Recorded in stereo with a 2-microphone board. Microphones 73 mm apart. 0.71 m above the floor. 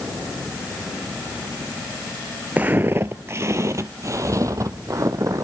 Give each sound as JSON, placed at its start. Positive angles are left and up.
{"t": 2.6, "sound": "footsteps", "side_deg": -25, "distance_m": 0.7}